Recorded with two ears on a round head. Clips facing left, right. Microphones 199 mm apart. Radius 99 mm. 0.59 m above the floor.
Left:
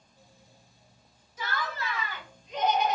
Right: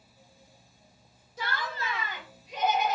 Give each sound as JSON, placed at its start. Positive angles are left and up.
{"t": 1.4, "sound": "laughter", "side_deg": -30, "distance_m": 1.7}